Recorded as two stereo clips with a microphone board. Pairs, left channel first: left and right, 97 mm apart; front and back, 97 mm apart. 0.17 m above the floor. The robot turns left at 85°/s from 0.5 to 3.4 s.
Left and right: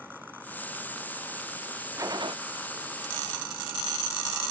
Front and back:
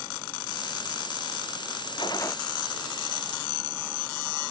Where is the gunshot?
35° right; by 2.4 s 65° right.